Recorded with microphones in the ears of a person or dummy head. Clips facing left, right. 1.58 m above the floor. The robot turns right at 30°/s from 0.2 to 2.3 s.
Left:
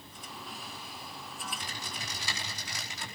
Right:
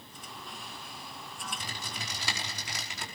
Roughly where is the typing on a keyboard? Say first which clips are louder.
Right 1 dB; right.